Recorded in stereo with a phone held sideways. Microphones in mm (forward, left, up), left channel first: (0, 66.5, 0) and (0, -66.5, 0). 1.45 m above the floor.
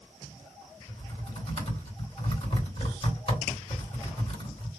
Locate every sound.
0.9 s typing on a keyboard: 50° left (ahead or behind), 2.5 m